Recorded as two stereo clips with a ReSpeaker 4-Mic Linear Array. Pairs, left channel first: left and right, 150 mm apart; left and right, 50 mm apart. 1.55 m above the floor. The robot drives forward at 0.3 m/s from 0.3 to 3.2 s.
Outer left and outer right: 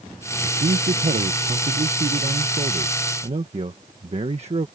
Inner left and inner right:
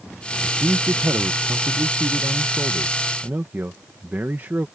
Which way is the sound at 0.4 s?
75° right (ahead or behind).